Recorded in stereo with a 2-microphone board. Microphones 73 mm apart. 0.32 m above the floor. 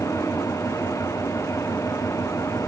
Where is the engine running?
45° left (ahead or behind).